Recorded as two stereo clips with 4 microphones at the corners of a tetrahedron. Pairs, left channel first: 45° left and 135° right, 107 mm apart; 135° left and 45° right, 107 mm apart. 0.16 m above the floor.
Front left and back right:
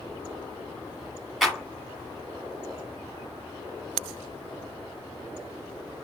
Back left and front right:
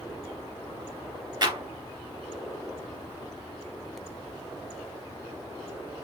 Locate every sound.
1.4 s a clap: 45° right, 1.4 m